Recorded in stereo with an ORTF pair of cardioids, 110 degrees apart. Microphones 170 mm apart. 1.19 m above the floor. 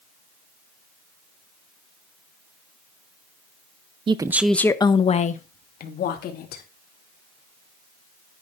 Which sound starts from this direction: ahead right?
A woman speaking, at 4.1 s.